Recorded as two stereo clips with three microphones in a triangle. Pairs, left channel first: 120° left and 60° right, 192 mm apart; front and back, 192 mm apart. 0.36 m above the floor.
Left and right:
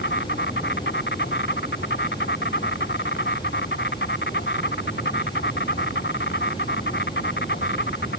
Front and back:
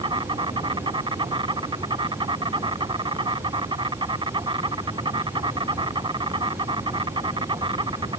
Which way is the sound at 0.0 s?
115° left.